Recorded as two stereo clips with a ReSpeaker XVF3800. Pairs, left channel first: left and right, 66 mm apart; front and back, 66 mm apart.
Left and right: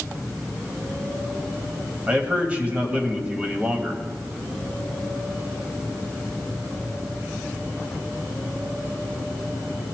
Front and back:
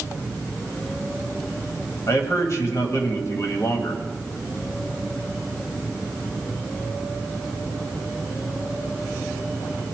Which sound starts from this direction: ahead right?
A man speaking, at 2.1 s.